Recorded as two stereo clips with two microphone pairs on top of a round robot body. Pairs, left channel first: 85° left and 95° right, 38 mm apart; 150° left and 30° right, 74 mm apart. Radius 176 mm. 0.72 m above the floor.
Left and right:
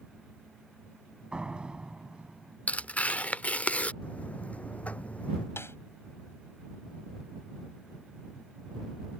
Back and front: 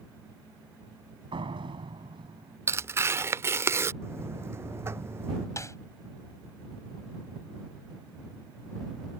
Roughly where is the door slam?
Ahead right.